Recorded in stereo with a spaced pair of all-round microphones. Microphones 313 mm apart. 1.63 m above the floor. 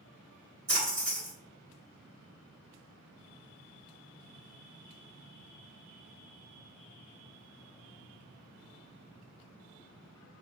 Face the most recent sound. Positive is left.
turn(degrees=-60)  # may be behind; listen again after turning